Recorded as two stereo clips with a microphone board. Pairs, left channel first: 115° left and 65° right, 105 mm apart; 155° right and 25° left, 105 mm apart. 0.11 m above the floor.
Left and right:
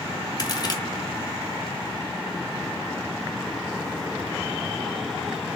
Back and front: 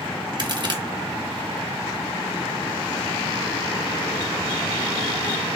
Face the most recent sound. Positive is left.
turn(degrees=65)